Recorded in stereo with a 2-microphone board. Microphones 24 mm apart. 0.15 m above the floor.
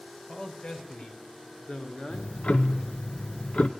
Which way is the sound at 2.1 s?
60° left (ahead or behind).